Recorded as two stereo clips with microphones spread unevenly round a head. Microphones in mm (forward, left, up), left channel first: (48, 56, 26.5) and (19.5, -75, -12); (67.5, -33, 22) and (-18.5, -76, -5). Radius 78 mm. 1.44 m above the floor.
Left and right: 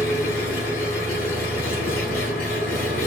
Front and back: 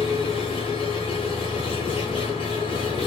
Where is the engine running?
75° left, 8.5 m.